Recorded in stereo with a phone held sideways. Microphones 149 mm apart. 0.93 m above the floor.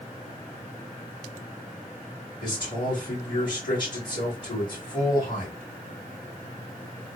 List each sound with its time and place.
2.4 s a man speaking: 30° left (ahead or behind), 2 m